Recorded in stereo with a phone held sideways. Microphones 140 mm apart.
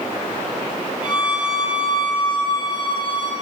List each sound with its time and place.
1.0 s a violin: 35° left (ahead or behind), 4 m